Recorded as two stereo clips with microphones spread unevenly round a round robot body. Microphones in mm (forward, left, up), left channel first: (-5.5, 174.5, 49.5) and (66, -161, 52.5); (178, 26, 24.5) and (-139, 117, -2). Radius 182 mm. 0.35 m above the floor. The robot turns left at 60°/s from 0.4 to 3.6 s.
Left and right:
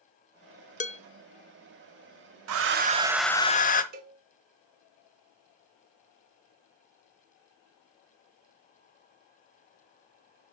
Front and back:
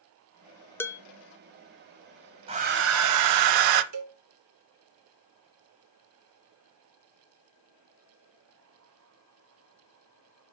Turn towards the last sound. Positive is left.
turn(degrees=-145)